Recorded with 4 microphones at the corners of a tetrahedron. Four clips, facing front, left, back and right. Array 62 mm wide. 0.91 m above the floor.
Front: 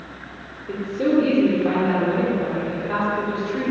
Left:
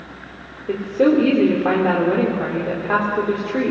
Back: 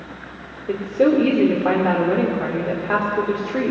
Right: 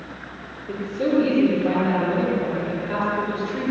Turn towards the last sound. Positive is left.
turn(degrees=130)